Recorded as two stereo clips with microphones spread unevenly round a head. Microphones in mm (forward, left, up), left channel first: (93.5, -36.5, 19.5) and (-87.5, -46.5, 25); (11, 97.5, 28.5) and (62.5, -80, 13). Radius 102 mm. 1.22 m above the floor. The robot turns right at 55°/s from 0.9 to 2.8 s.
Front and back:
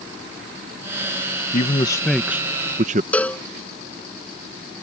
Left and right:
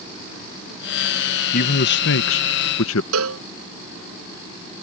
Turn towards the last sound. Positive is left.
turn(degrees=-80)